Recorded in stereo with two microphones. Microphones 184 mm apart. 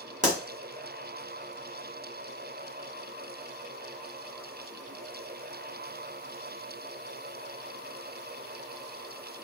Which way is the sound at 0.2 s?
40° right (ahead or behind).